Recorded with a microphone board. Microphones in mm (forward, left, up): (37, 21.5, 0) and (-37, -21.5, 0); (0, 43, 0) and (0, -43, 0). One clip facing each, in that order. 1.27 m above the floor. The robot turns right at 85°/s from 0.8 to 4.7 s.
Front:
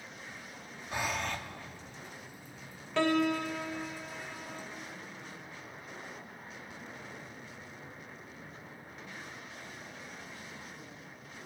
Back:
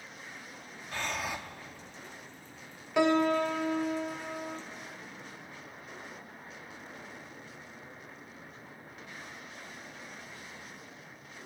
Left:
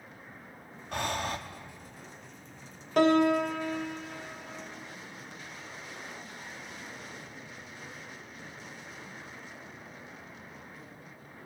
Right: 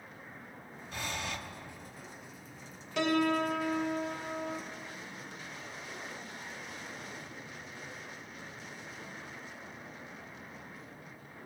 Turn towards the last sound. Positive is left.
turn(degrees=-80)